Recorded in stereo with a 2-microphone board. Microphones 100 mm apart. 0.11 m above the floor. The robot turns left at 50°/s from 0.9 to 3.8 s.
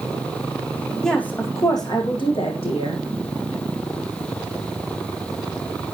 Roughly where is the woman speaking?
Behind.